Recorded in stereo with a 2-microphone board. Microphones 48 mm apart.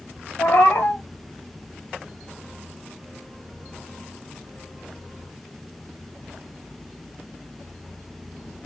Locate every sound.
0.4 s a cat meowing: 50° left (ahead or behind), 1.0 m